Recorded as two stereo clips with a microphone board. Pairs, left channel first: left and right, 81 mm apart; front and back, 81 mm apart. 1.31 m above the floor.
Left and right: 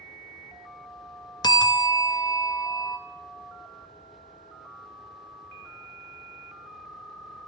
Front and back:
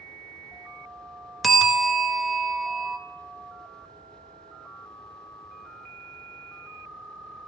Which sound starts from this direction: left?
A bell, at 1.4 s.